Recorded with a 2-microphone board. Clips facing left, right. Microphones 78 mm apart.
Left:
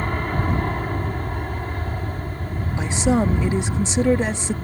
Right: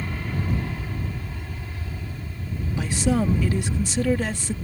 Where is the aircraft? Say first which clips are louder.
Left 6 dB; 55° left (ahead or behind).